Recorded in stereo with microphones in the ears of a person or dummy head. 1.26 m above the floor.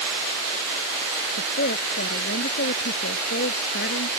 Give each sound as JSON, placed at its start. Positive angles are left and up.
{"t": 1.4, "sound": "a woman speaking", "side_deg": 55}